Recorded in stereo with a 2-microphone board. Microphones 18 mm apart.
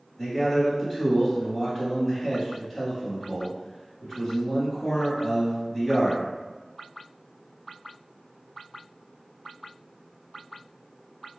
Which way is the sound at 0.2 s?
25° left (ahead or behind).